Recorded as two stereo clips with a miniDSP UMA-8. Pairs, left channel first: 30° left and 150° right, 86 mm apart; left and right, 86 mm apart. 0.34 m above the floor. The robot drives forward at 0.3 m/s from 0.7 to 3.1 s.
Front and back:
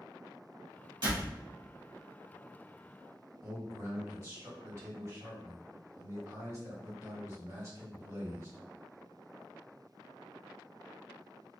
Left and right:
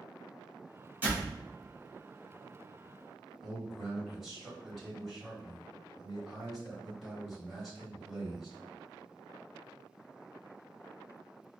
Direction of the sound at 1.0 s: 150° right.